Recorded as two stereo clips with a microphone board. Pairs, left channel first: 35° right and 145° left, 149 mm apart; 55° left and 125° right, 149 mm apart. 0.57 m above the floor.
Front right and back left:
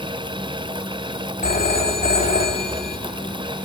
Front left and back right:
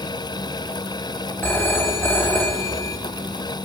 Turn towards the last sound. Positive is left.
turn(degrees=-20)